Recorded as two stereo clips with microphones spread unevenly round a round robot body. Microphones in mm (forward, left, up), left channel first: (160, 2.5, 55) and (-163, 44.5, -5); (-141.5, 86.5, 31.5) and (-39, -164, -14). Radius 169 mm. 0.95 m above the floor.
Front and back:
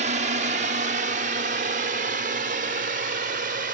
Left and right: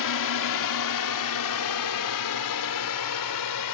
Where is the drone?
110° left.